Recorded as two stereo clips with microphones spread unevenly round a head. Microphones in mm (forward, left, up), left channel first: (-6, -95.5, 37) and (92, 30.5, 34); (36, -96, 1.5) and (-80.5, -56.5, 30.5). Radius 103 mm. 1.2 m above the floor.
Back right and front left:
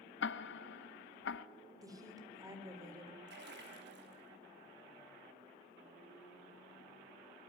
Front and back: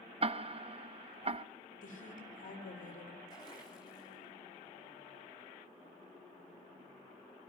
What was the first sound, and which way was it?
Ticking, 165° right.